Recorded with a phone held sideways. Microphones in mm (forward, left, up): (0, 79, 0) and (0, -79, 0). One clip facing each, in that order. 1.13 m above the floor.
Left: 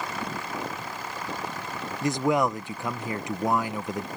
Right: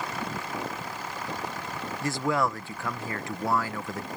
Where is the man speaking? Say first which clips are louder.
Left 4 dB; 20° left (ahead or behind).